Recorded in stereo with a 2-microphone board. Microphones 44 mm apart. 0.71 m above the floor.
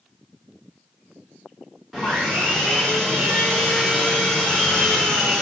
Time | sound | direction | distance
1.9 | sawing | centre (ahead or behind) | 1.7 m